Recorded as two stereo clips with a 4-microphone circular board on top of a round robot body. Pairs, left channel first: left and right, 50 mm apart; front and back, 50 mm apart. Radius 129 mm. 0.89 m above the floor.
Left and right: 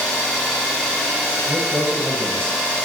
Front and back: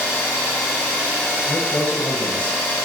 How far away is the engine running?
About 1.2 m.